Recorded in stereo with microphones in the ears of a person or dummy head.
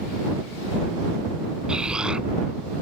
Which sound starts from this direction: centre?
An explosion, at 1.7 s.